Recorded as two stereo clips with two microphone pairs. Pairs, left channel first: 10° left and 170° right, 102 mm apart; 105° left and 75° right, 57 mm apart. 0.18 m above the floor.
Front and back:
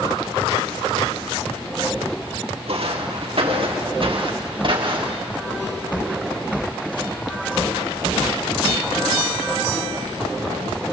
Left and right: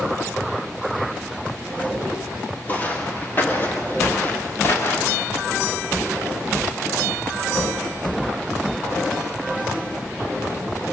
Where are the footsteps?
165° left, 5 m; by 5.3 s 150° left, 5 m.